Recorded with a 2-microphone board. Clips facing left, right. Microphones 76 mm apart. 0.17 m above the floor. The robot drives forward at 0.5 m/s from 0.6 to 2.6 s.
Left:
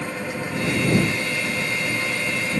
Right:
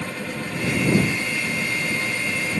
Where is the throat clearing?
I don't hear throat clearing.